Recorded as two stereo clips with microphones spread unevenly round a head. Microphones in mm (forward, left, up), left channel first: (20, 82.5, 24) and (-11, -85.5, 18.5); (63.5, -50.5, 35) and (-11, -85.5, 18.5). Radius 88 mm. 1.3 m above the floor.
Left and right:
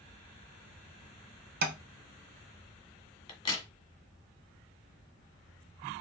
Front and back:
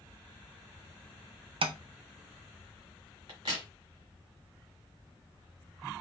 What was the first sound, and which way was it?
Tapping, 140° right.